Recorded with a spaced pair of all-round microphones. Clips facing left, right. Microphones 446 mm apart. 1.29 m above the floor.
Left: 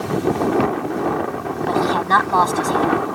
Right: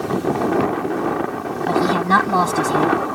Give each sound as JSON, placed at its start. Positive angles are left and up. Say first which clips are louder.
{"t": 1.7, "sound": "a woman speaking", "louder": "right 2 dB", "side_deg": -45}